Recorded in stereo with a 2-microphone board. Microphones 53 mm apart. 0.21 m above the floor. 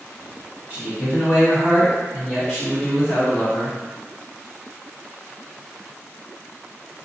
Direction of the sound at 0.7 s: 25° right (ahead or behind).